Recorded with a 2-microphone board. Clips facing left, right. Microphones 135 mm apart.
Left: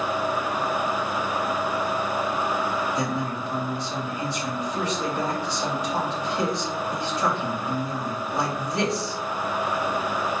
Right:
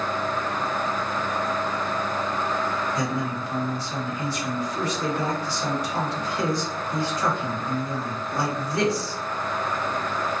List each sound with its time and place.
3.0 s a man speaking: 25° left (ahead or behind), 1.5 m